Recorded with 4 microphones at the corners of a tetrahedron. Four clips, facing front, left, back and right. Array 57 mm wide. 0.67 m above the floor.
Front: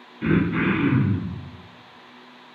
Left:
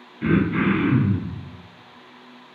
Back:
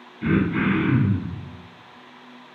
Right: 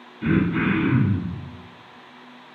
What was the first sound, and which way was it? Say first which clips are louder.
Throat clearing: left 1 dB, even; 55° left.